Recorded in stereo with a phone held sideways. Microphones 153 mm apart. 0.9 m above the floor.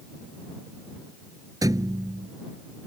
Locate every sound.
1.6 s a thud: 25° right (ahead or behind)